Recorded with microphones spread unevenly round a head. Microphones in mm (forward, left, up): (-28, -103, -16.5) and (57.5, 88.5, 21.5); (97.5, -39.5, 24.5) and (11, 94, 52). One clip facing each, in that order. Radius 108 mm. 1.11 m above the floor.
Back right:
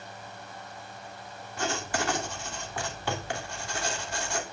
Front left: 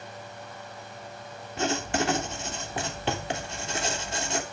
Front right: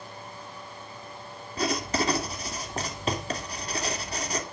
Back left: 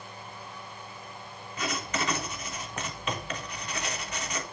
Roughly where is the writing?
Ahead.